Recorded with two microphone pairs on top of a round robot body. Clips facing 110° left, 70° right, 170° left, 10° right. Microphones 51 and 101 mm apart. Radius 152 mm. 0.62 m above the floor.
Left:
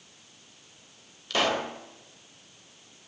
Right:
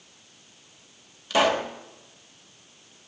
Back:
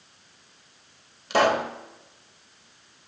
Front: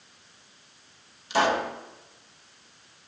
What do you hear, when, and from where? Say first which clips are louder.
1.3 s a pop: right 5 dB, back 3 dB; 155° right, 2 m